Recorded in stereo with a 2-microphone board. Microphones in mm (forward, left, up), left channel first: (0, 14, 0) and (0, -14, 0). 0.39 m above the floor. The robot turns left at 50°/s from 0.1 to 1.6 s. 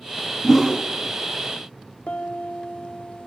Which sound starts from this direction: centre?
A whoosh, at 0.4 s.